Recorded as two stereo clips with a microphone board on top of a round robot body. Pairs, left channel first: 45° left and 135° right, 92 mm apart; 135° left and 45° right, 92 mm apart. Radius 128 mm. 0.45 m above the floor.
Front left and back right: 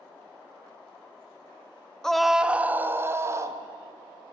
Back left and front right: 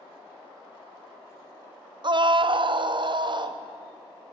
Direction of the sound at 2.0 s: 40° right.